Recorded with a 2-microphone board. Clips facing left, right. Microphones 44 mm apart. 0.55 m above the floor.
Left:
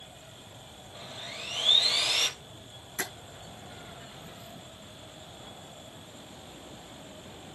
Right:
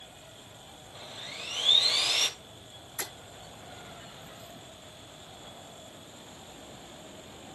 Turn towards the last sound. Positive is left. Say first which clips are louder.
# left 4 dB
turn(degrees=80)